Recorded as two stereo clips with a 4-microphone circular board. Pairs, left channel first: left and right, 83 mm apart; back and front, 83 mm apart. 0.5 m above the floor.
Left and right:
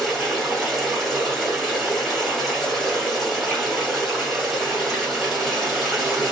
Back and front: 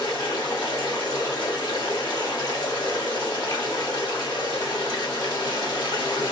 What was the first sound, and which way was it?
Running water, 175° right.